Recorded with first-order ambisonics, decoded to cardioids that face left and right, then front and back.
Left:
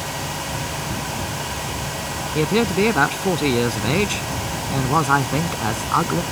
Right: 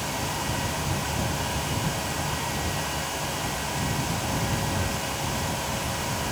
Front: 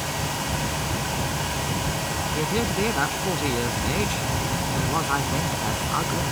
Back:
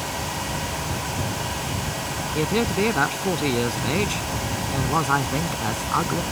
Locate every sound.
2.4 s a man speaking: 105° left